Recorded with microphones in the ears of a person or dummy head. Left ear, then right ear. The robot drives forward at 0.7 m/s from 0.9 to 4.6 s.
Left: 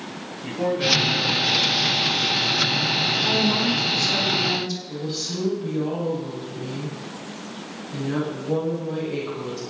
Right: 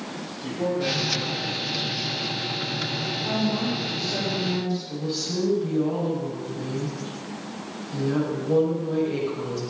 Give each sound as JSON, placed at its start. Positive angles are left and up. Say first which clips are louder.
{"t": 0.4, "sound": "a man speaking", "louder": "left 4 dB", "side_deg": 70, "distance_m": 7.5}
{"t": 3.2, "sound": "a woman speaking", "louder": "left 6 dB", "side_deg": 85, "distance_m": 5.0}
{"t": 4.9, "sound": "a woman speaking", "louder": "even", "side_deg": 10, "distance_m": 6.0}